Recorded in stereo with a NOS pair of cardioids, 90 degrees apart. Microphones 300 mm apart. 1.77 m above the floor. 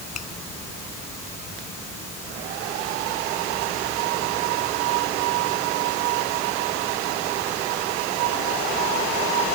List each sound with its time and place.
0.1 s a finger snap: 60° left